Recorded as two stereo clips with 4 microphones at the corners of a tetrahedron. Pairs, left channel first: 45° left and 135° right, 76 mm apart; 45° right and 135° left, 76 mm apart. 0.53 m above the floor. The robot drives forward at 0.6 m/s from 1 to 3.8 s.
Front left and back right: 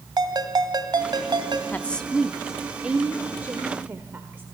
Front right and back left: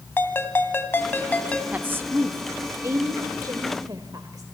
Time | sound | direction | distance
0.2 | a ringtone | 105° right | 1.6 m
1.7 | a woman speaking | 90° left | 0.7 m